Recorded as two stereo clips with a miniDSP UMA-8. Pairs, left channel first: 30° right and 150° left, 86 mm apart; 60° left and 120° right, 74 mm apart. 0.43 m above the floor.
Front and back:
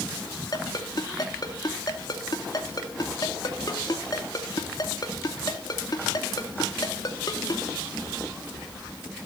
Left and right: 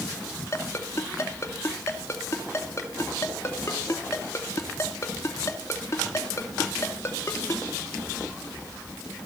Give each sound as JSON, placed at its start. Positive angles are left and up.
{"t": 0.5, "sound": "a ringtone", "azimuth_deg": 10, "distance_m": 2.5}